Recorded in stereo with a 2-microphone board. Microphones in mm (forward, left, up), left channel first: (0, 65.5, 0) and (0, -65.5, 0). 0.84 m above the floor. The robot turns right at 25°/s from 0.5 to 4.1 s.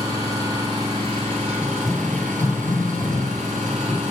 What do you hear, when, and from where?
0.0 s an engine running: 150° right, 4 m; by 4.1 s 60° right, 4 m
1.6 s running footsteps: 15° right (ahead or behind), 0.8 m; by 4.0 s 10° left (ahead or behind), 2 m